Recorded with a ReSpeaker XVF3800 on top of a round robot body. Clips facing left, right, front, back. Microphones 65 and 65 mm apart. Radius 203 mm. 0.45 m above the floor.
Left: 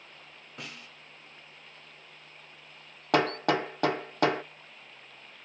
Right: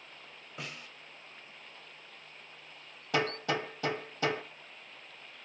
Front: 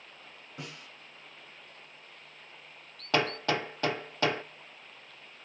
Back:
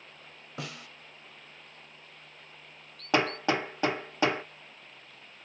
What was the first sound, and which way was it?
A snare drum, 175° right.